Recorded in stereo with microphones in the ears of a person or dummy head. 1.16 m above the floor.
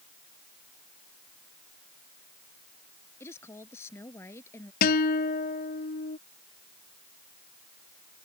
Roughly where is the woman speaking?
Centre.